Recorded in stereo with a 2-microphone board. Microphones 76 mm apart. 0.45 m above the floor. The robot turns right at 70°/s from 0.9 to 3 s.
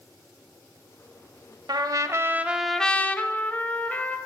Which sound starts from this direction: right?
A trumpet, at 1.7 s.